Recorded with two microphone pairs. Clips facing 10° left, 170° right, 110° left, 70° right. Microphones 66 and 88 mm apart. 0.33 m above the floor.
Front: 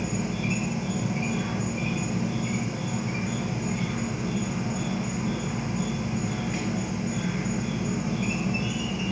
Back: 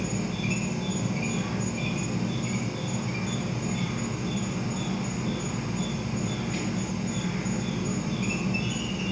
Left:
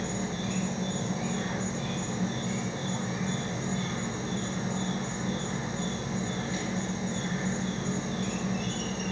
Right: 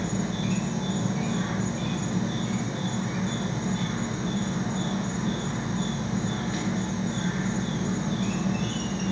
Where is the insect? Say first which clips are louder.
Front 1 dB, right 4 dB; 60° right, 0.7 m.